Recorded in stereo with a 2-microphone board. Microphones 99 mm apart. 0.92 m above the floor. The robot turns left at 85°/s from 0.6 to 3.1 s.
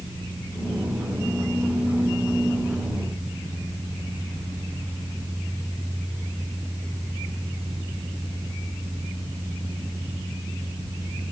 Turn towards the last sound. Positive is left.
No sound to turn to.